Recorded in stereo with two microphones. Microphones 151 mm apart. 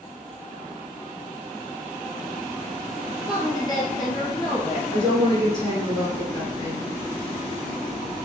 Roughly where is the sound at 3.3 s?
Left.